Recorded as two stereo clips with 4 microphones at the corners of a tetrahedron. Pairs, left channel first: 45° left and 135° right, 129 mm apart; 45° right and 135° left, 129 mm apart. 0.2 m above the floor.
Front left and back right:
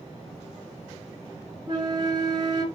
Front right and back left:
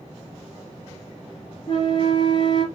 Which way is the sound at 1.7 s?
90° right.